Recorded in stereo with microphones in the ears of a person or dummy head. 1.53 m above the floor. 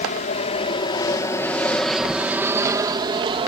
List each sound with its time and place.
0.0 s an aircraft: 40° left (ahead or behind); by 3.5 s 25° right (ahead or behind)